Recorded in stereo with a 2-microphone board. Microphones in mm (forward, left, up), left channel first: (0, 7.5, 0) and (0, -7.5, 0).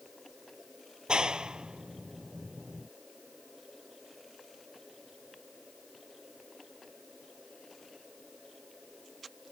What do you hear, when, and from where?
1.1 s a clap: 70° right (ahead or behind)